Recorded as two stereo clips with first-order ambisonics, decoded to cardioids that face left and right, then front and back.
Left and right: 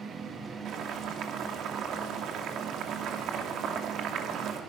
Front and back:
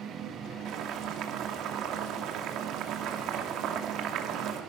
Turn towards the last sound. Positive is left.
turn(degrees=-140)